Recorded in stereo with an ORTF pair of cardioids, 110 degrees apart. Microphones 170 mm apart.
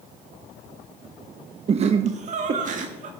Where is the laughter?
35° right, 0.8 m; by 3.1 s 50° right, 2 m.